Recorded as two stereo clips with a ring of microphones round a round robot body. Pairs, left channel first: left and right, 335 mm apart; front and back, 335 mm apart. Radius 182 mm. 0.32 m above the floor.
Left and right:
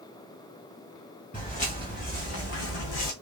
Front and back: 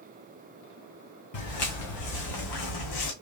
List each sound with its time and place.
1.3 s footsteps: 15° left, 2.5 m; by 3.1 s 45° left, 1.3 m